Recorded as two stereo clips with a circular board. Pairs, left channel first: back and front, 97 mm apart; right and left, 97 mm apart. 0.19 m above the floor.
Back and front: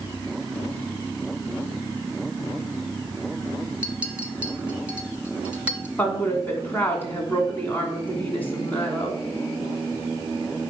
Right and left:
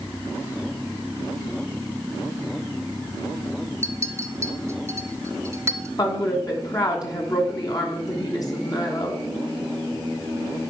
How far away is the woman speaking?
About 1.7 m.